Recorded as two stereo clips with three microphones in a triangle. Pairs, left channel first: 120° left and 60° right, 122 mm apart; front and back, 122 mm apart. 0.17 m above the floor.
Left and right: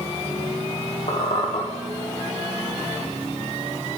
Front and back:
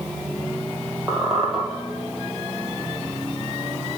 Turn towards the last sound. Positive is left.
turn(degrees=90)